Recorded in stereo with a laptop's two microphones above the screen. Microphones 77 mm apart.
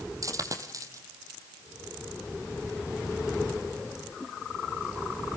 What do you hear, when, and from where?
0.2 s a dropped coin: 45° right (ahead or behind), 3 m